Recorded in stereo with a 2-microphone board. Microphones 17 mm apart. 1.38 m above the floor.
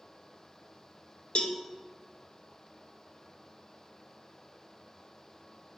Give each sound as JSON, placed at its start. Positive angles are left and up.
{"t": 1.4, "sound": "a cowbell", "side_deg": 70, "distance_m": 0.5}